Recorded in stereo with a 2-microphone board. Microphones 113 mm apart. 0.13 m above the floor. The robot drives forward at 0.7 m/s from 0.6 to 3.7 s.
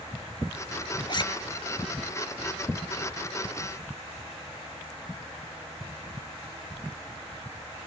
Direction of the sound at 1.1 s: 45° left (ahead or behind).